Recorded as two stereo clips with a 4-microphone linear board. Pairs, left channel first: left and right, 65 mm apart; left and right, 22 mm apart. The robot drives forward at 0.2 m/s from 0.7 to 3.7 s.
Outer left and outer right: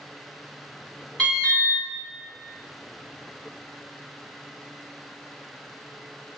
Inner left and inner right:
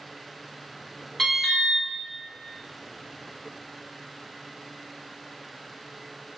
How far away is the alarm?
About 1.7 m.